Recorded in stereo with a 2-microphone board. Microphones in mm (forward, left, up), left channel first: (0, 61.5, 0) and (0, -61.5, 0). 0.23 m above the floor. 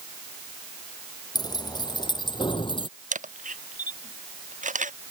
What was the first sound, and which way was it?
Keys jangling, 30° left (ahead or behind).